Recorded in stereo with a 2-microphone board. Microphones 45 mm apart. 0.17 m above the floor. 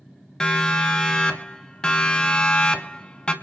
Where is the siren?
15° left (ahead or behind), 3 m; by 3.3 s 20° left (ahead or behind), 1.8 m.